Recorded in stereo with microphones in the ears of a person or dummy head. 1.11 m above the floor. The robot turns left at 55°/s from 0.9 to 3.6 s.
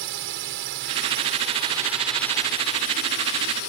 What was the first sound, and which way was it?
A drone, 115° right.